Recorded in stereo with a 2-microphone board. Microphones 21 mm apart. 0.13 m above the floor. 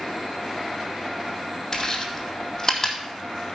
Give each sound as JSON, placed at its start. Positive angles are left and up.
{"t": 1.7, "sound": "chewing", "side_deg": 15, "distance_m": 2.0}